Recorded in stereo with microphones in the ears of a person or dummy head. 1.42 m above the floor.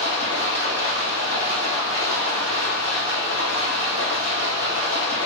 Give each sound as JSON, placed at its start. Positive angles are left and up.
{"t": 0.0, "sound": "running water", "side_deg": -30, "distance_m": 3.0}